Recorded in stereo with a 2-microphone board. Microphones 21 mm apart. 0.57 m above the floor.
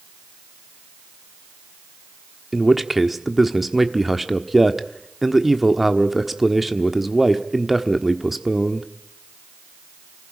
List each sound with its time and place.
2.5 s a man speaking: 10° right (ahead or behind), 1.3 m